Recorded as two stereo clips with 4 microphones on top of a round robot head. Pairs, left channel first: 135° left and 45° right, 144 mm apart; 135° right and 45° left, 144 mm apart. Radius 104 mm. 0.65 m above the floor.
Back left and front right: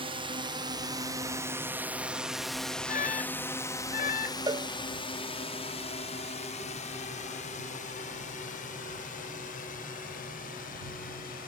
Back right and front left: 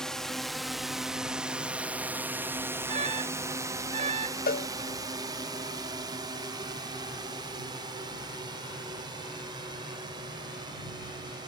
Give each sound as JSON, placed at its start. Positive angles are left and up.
{"t": 0.0, "sound": "a drone", "azimuth_deg": -50}
{"t": 2.9, "sound": "an alarm", "azimuth_deg": 100}
{"t": 4.5, "sound": "a cowbell", "azimuth_deg": -115}